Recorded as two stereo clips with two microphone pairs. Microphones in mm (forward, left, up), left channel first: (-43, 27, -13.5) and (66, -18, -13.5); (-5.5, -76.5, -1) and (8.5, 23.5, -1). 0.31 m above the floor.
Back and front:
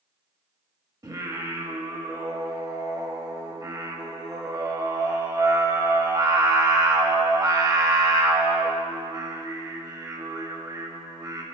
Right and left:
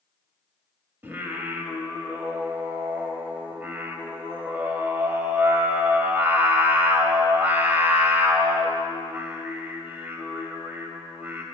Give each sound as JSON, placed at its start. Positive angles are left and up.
{"t": 1.0, "sound": "singing", "azimuth_deg": 20, "distance_m": 0.8}